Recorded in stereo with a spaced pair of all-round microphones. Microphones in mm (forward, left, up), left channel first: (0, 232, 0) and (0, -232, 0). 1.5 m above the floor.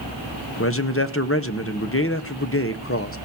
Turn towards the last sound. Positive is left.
turn(degrees=30)  # may be behind; listen again after turning